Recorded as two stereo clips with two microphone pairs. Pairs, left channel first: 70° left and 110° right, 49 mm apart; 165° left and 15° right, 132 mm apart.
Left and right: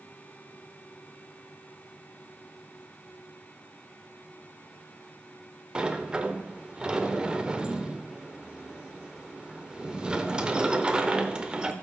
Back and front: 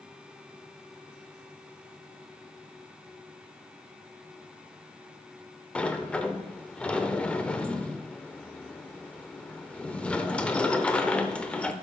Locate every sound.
5.8 s a sliding door: 115° right, 0.7 m